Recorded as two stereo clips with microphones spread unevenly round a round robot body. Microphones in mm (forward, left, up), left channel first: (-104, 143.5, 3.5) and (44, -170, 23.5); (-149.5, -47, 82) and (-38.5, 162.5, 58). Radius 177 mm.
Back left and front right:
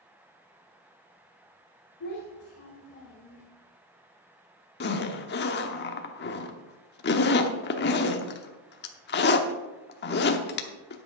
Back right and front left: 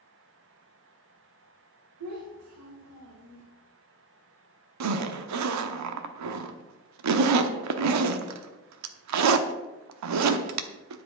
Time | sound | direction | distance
2.0 | a child speaking | 55° left | 1.8 m
4.8 | a zipper | 50° left | 0.8 m